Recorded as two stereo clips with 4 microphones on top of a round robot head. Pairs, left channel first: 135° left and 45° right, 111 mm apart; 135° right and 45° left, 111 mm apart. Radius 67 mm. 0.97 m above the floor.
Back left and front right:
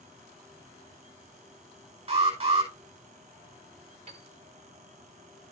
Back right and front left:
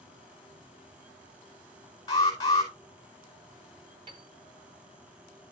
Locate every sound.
2.1 s an alarm: 75° right, 5 m
4.1 s a piano: 5° right, 1.3 m